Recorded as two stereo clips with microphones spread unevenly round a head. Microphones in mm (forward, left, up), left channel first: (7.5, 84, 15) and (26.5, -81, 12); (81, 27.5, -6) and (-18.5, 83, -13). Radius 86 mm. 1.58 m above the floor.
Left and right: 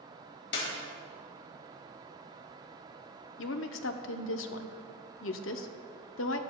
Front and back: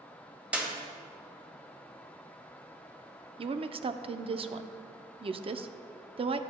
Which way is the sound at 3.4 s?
110° left.